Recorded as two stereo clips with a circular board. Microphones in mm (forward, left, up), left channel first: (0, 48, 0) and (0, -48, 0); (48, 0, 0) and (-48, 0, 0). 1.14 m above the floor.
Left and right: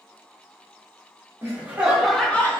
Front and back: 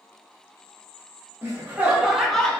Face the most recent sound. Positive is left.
turn(degrees=65)